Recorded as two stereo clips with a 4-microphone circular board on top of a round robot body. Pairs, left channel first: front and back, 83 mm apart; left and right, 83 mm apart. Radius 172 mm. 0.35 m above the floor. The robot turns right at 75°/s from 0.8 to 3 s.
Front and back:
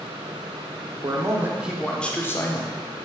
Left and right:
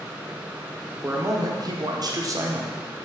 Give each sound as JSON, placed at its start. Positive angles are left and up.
{"t": 1.0, "sound": "a man speaking", "azimuth_deg": -150, "distance_m": 1.6}